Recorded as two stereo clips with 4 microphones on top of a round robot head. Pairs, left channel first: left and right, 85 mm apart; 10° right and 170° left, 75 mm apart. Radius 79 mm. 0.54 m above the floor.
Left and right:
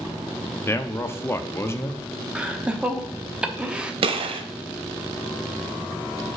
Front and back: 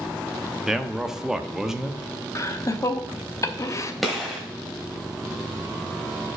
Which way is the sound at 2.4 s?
20° right.